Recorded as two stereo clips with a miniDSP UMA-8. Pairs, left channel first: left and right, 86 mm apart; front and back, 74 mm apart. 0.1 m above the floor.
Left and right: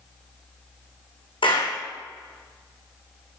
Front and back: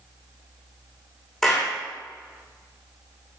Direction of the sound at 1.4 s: 85° left.